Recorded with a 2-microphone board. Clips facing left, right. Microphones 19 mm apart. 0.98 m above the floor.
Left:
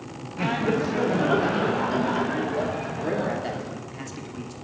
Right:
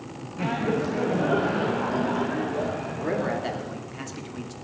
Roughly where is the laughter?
Left.